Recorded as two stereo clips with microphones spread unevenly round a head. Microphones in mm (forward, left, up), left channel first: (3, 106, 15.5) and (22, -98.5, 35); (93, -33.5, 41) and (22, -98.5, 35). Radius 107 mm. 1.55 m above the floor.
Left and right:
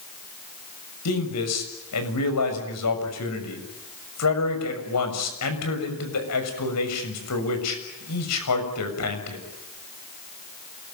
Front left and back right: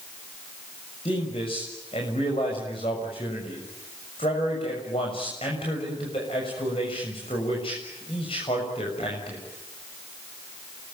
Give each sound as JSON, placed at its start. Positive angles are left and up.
{"t": 1.1, "sound": "a man speaking", "azimuth_deg": 105, "distance_m": 6.5}